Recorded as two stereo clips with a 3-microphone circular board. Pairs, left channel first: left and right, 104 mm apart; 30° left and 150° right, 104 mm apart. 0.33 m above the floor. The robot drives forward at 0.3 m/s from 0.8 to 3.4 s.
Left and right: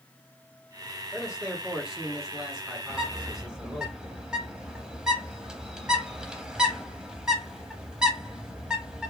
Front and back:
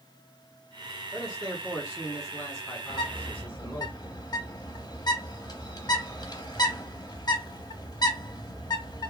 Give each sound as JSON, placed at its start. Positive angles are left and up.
{"t": 1.1, "sound": "a man speaking", "azimuth_deg": -10, "distance_m": 1.9}
{"t": 2.9, "sound": "a bird", "azimuth_deg": -10, "distance_m": 0.7}